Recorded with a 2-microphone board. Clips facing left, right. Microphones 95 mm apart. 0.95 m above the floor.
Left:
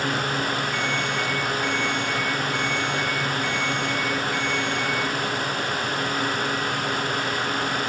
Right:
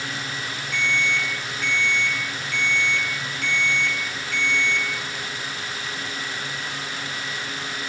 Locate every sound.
0.7 s an alarm: 90° right, 6.5 m